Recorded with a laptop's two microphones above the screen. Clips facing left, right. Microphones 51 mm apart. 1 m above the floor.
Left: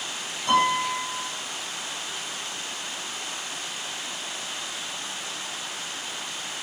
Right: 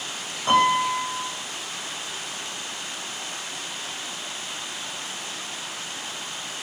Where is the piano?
40° right (ahead or behind), 6.5 m.